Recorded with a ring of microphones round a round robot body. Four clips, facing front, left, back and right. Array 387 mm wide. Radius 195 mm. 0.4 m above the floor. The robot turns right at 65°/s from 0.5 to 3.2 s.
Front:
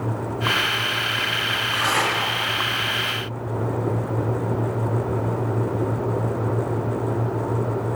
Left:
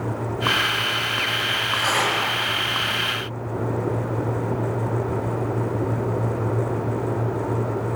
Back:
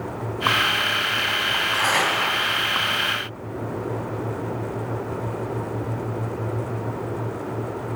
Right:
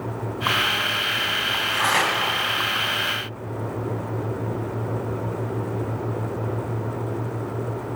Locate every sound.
1.5 s tearing paper: 150° right, 3 m; by 2.1 s 110° right, 3 m